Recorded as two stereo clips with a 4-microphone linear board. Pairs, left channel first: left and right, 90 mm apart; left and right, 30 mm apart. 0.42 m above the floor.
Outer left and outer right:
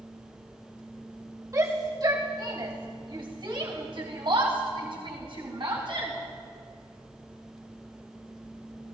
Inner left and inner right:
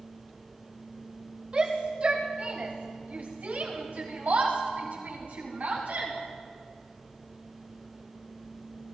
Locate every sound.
1.5 s a shout: 40° right (ahead or behind), 2.5 m; by 6.1 s 65° right (ahead or behind), 5 m